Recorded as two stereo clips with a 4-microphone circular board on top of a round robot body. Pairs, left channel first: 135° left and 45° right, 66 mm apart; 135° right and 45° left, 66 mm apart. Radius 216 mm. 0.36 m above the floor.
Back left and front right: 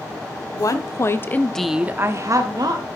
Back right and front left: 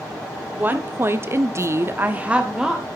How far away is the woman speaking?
About 2 m.